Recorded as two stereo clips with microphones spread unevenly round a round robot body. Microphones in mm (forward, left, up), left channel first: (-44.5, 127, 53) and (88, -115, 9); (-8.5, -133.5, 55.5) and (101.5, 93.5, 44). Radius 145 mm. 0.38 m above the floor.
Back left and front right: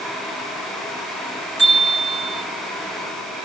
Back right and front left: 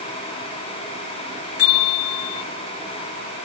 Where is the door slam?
No door slam in this recording.